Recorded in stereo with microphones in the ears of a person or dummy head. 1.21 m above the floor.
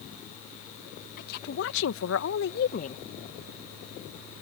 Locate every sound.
1.2 s a woman speaking: 60° left (ahead or behind); by 3.0 s 30° left (ahead or behind)